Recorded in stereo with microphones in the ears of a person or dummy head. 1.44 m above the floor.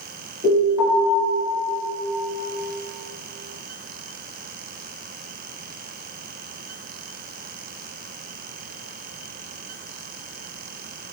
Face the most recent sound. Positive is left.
turn(degrees=-30)  # may be behind; listen again after turning